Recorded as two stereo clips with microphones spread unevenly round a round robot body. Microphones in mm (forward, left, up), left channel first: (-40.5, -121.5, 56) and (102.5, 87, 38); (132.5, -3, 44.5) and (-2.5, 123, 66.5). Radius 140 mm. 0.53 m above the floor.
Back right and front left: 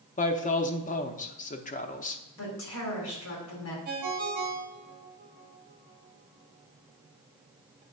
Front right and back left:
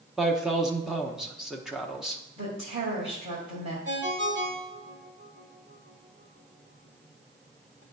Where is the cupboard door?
I don't hear a cupboard door.